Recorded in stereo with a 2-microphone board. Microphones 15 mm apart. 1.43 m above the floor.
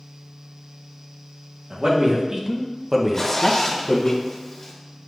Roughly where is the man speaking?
Right.